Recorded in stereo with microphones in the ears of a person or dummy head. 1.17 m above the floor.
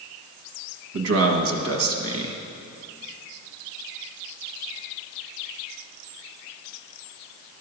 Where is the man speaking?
70° right (ahead or behind), 1.4 m.